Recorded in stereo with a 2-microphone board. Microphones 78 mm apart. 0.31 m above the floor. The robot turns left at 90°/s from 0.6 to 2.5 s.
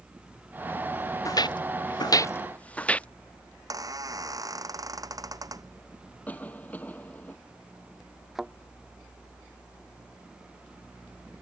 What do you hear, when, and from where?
1.2 s footsteps: 45° left (ahead or behind); by 3.1 s 15° left (ahead or behind)
3.5 s a squeak: 50° right (ahead or behind)
6.3 s a cough: 20° left (ahead or behind)
8.3 s a thud: centre (ahead or behind)